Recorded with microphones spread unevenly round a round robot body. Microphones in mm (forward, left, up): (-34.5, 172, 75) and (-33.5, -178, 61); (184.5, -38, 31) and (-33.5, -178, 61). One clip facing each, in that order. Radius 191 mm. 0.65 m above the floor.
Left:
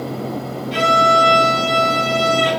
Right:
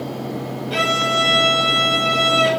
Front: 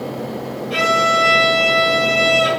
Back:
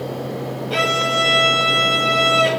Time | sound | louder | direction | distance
0.7 | a violin | left 6 dB, front 3 dB | 85° right | 1.7 m